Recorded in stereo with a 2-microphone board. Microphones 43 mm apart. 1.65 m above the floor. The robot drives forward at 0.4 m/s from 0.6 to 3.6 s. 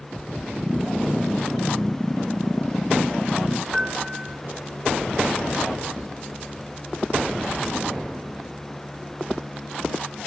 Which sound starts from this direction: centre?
A piano, at 3.7 s.